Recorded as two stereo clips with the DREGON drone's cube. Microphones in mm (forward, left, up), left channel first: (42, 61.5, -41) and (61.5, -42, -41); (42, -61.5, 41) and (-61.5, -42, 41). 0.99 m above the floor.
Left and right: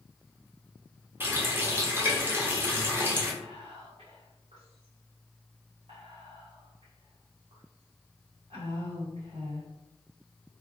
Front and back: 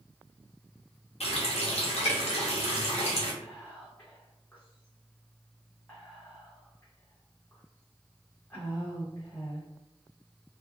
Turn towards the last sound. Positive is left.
turn(degrees=-80)